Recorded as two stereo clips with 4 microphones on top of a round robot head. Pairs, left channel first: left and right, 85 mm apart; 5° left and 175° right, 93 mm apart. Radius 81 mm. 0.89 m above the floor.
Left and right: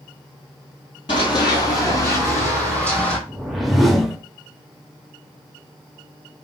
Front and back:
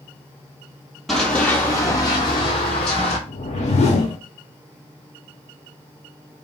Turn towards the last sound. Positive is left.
turn(degrees=0)